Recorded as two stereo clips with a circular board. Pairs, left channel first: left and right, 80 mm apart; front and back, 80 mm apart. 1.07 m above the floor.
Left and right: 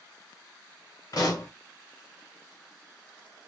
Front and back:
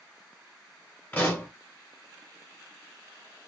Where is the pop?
65° left, 1.1 m.